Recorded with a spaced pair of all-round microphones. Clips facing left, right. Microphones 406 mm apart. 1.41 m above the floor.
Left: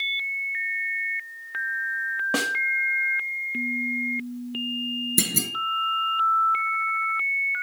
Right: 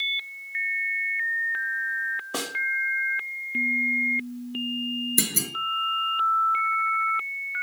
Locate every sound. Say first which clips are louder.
2.3 s a snare drum: left 5 dB; 75° left (ahead or behind), 2 m
5.2 s a clunk: left 2 dB; 45° left (ahead or behind), 2.5 m